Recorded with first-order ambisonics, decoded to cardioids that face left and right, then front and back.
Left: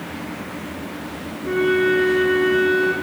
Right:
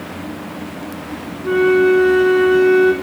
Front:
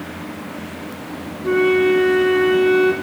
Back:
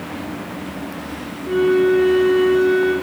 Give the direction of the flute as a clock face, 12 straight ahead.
1 o'clock.